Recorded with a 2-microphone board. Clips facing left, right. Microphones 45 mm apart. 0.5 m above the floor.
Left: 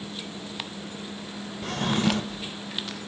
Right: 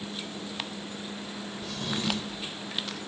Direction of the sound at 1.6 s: 55° left (ahead or behind).